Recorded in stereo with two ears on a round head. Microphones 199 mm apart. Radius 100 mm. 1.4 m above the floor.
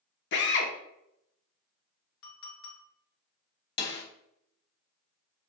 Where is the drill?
55° left (ahead or behind), 0.9 m.